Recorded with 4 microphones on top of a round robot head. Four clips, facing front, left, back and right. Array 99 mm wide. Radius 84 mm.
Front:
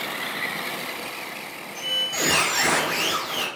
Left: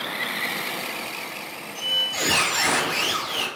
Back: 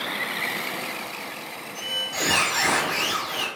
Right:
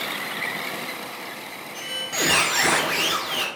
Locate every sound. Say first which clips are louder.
1.8 s a squeak: right 1 dB, front 2 dB; 85° right, 0.8 m